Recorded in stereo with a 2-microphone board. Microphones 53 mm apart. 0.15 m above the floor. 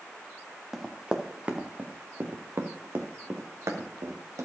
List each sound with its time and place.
0.7 s running footsteps: 10° right (ahead or behind), 1.4 m; by 4.4 s 75° right (ahead or behind), 2 m